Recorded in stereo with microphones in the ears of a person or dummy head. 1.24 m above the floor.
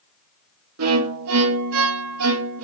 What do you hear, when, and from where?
0.8 s a violin: 75° right (ahead or behind), 1.0 m